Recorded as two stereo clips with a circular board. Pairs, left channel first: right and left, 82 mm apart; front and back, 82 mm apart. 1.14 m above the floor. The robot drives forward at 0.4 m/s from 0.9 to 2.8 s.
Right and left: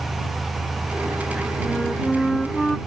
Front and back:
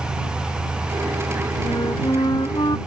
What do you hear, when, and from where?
1.6 s a flute: 5° right